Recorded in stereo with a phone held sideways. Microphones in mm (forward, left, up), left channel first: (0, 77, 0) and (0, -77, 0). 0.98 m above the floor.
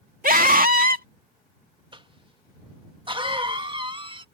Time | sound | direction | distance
0.2 | a scream | 65° right (ahead or behind) | ?
1.9 | a cough | 35° right (ahead or behind) | ?